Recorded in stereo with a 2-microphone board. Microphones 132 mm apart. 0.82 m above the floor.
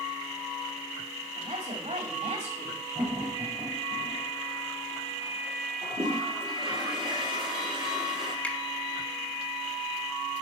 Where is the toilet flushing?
40° right (ahead or behind), 4 m.